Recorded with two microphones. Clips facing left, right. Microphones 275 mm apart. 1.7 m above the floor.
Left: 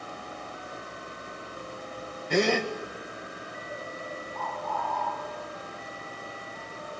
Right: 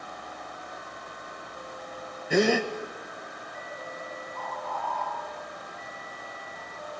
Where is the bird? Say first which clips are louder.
Left 2 dB; 5° left (ahead or behind), 8.5 m.